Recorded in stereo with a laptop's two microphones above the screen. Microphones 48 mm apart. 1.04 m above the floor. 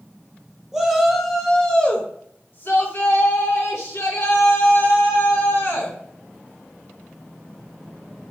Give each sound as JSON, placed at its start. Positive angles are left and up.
{"t": 0.7, "sound": "a shout", "side_deg": -10, "distance_m": 1.1}